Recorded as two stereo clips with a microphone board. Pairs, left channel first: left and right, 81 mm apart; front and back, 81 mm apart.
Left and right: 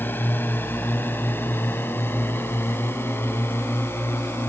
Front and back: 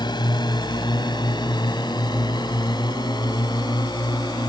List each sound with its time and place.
0.0 s a drone: 25° left; by 4.5 s 30° left